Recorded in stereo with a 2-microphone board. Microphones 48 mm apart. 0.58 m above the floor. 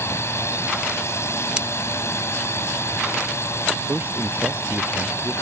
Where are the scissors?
20° right (ahead or behind).